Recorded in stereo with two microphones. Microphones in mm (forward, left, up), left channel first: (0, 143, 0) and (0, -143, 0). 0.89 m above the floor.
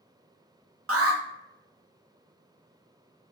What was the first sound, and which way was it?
An alarm, 55° right (ahead or behind).